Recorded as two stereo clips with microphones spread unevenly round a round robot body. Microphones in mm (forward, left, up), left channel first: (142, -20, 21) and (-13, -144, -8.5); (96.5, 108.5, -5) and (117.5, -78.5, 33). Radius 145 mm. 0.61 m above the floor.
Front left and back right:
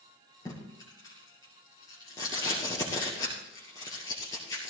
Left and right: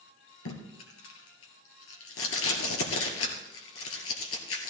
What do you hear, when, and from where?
0.5 s tape being pulled: 115° left, 2.5 m